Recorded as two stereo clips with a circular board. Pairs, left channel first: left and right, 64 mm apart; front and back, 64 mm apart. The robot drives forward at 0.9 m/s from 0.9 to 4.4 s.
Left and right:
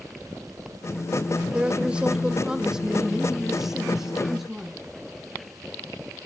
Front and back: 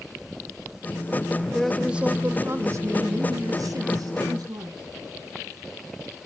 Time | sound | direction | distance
1.5 | a woman speaking | 55° right | 0.8 m